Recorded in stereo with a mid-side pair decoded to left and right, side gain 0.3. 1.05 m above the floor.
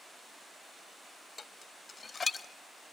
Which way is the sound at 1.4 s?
50° left.